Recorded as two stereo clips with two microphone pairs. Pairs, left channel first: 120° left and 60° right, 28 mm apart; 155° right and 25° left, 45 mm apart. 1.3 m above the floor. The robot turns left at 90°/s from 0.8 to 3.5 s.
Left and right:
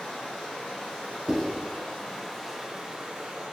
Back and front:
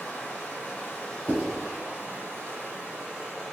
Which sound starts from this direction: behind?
Running water, at 0.0 s.